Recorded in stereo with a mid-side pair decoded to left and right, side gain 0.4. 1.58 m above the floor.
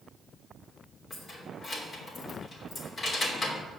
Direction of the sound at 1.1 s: 55° left.